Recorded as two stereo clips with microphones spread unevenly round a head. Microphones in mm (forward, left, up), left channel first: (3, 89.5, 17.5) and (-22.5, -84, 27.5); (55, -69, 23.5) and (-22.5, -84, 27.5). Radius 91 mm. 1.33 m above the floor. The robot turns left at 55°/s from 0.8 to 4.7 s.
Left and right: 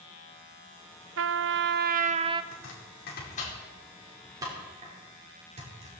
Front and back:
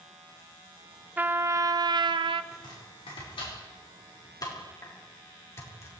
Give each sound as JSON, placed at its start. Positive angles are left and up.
{"t": 1.2, "sound": "a trumpet", "azimuth_deg": -100, "distance_m": 0.7}
{"t": 2.5, "sound": "chopping", "azimuth_deg": 80, "distance_m": 5.0}